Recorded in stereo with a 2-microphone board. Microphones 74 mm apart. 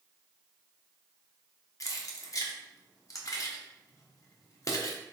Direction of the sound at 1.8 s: 45° left (ahead or behind).